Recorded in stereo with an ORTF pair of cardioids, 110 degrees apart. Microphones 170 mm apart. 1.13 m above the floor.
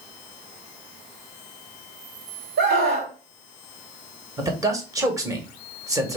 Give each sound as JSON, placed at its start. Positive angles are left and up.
{"t": 2.6, "sound": "a scream", "azimuth_deg": -65, "distance_m": 1.8}
{"t": 4.4, "sound": "a man speaking", "azimuth_deg": -20, "distance_m": 1.4}